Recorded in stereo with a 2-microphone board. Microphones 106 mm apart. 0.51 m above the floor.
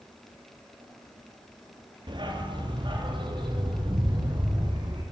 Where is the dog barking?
45° right (ahead or behind), 3.5 m.